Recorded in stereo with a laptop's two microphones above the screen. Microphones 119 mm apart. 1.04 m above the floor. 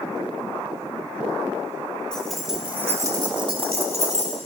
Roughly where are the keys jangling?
Centre.